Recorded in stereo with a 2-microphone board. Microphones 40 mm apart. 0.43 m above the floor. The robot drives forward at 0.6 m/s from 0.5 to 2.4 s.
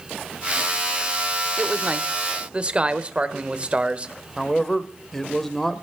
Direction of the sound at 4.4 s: 5° left (ahead or behind).